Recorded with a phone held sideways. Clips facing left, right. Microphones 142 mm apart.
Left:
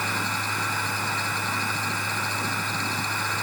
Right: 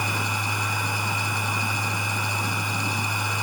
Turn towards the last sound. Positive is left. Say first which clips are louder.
# right 1 dB
turn(degrees=-15)  # may be behind; listen again after turning